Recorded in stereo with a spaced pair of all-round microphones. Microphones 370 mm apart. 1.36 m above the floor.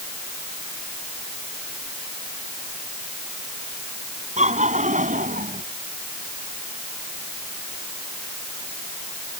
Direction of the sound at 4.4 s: 20° right (ahead or behind).